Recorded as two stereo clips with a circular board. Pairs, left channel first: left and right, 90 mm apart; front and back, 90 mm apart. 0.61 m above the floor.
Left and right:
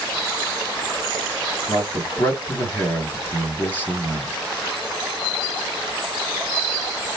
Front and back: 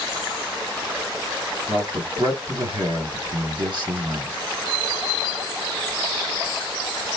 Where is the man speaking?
155° left, 2.5 m.